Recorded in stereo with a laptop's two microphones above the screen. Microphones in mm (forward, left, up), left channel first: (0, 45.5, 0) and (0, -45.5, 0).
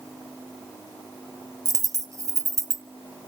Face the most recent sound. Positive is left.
turn(degrees=-35)  # may be behind; listen again after turning